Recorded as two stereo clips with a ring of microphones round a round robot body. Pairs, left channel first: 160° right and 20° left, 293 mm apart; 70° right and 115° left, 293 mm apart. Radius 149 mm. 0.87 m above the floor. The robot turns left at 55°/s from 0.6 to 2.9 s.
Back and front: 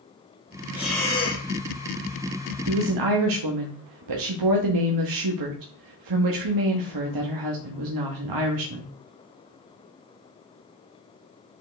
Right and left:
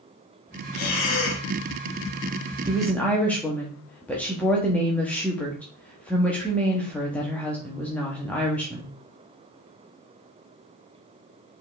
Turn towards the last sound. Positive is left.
turn(degrees=20)